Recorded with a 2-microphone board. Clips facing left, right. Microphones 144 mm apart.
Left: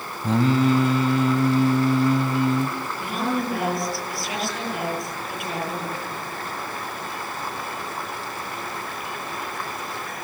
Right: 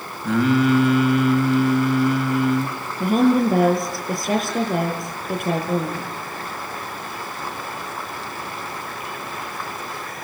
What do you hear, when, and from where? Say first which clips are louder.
0.2 s singing: right 2 dB; 35° left (ahead or behind), 2 m
3.0 s a woman speaking: right 10 dB; 45° right (ahead or behind), 8.5 m